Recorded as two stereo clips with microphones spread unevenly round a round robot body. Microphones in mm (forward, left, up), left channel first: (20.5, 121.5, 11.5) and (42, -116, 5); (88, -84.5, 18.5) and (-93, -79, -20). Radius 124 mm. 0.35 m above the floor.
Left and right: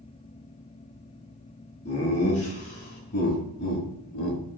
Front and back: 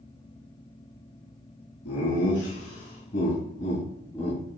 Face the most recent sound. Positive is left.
turn(degrees=80)